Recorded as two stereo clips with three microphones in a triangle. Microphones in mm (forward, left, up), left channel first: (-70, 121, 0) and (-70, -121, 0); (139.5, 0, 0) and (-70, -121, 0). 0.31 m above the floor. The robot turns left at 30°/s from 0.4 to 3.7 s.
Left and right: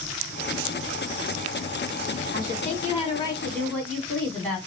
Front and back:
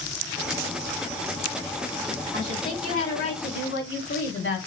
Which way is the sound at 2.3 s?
45° left.